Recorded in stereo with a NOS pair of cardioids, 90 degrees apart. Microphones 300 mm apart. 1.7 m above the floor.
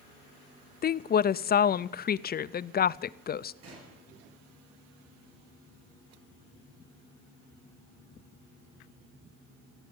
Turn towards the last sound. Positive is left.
turn(degrees=-55)